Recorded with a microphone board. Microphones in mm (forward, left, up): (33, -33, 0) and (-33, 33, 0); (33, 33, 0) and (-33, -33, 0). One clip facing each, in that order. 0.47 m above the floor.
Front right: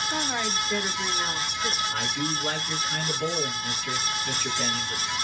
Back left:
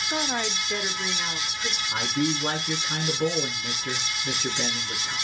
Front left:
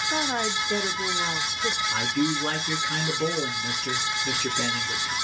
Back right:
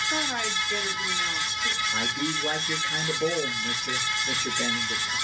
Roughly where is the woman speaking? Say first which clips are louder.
Back left 3 dB, front left 5 dB; left.